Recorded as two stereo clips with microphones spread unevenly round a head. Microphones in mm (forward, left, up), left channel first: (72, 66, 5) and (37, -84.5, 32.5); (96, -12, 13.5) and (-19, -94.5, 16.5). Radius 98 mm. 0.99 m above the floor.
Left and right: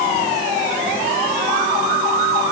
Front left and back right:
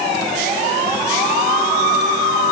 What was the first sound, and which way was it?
Only background noise.